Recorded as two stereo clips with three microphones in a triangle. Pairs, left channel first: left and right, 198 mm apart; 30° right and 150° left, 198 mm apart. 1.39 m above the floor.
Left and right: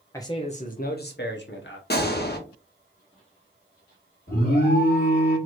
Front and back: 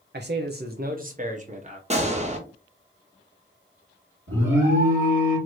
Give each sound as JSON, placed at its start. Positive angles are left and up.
{"t": 0.1, "sound": "a man speaking", "azimuth_deg": 160, "distance_m": 0.5}
{"t": 1.9, "sound": "a gunshot", "azimuth_deg": 105, "distance_m": 0.9}
{"t": 4.3, "sound": "an alarm", "azimuth_deg": 135, "distance_m": 2.5}